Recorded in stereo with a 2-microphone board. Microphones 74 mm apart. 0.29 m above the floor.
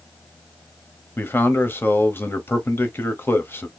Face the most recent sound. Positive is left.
turn(degrees=30)  # may be behind; listen again after turning